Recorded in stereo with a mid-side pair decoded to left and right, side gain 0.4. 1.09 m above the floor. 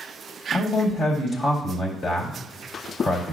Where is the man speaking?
50° left, 2 m.